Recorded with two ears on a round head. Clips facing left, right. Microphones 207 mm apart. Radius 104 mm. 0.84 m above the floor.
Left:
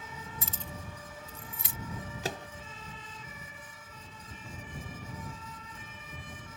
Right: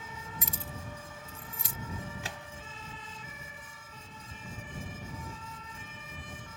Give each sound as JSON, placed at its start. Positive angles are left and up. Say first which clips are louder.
{"t": 0.4, "sound": "keys jangling", "louder": "right 1 dB", "side_deg": -15}
{"t": 2.2, "sound": "a microwave", "louder": "left 7 dB", "side_deg": 35}